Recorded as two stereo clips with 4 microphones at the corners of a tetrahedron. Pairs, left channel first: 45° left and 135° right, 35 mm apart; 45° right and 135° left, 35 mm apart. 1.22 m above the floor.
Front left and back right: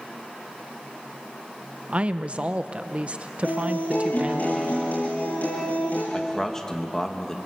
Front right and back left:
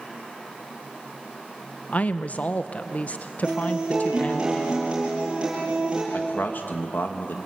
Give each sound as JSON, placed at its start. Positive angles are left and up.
{"t": 1.9, "sound": "a woman speaking", "azimuth_deg": -85, "distance_m": 0.8}
{"t": 3.4, "sound": "a guitar", "azimuth_deg": 75, "distance_m": 10.0}
{"t": 6.1, "sound": "a man speaking", "azimuth_deg": -25, "distance_m": 2.0}